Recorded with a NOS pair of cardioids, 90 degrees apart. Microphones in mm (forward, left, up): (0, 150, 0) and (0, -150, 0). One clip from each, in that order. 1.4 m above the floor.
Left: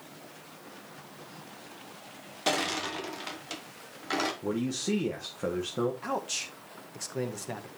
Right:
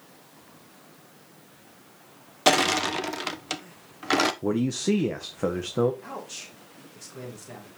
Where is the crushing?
45° right, 1.1 m.